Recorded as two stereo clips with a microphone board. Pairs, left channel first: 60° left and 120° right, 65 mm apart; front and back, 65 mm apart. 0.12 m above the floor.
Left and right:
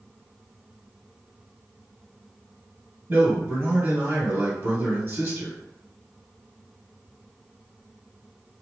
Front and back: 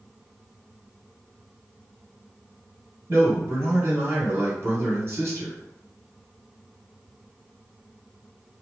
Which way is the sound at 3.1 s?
155° right.